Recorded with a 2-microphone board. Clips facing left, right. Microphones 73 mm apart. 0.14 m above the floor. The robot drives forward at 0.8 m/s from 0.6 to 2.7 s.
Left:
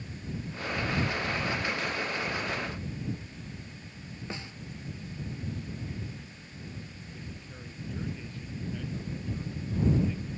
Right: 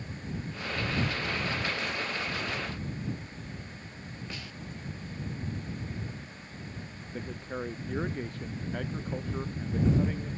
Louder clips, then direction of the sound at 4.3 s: Left 6 dB; 25° left (ahead or behind).